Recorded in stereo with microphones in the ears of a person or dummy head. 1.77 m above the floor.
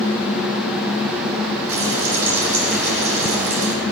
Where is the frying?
75° right (ahead or behind), 4 m.